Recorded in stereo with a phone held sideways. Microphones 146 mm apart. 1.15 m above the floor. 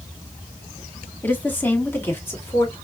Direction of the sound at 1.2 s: 15° left (ahead or behind).